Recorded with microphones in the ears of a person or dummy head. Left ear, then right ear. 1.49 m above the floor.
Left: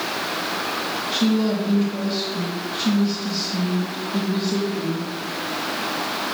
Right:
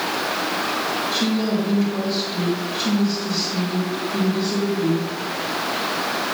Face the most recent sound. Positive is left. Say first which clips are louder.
# even
turn(degrees=10)  # may be behind; listen again after turning